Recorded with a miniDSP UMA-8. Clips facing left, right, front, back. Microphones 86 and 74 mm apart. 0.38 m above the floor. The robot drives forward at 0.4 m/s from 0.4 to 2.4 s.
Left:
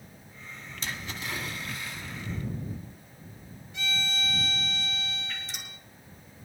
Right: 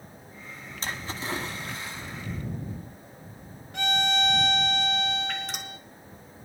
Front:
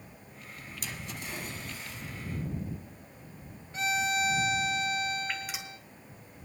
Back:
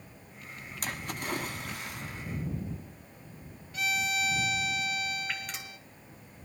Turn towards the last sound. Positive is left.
turn(degrees=-85)